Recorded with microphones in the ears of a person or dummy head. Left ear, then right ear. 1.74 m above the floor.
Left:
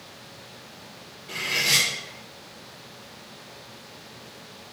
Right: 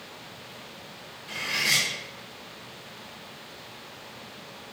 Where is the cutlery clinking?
55° right (ahead or behind), 1.8 m.